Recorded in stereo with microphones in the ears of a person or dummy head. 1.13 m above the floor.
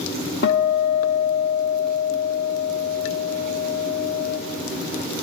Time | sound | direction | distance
0.4 | a guitar | 60° left (ahead or behind) | 1.0 m